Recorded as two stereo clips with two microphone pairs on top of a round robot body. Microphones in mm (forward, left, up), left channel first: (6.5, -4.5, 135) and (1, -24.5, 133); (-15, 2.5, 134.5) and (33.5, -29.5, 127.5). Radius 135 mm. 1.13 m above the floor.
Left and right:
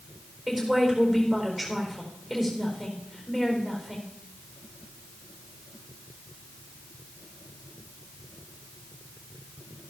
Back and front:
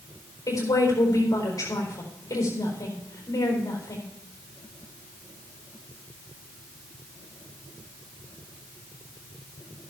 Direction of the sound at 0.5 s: 175° left.